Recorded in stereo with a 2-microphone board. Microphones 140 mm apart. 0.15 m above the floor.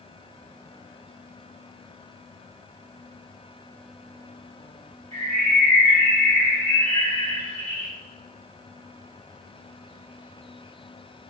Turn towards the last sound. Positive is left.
turn(degrees=15)  # may be behind; listen again after turning